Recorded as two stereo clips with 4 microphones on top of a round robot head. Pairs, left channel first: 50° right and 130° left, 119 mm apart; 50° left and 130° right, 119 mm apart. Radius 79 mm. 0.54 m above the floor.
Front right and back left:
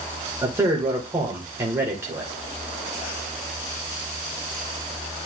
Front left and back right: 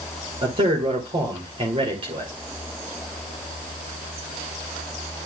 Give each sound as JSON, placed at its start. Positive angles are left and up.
{"t": 0.4, "sound": "a man speaking", "azimuth_deg": -165, "distance_m": 2.5}